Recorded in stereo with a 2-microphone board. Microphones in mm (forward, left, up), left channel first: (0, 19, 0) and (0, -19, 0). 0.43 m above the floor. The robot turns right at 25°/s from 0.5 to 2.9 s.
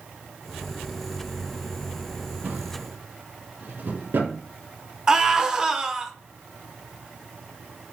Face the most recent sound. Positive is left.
turn(degrees=-20)  # may be behind; listen again after turning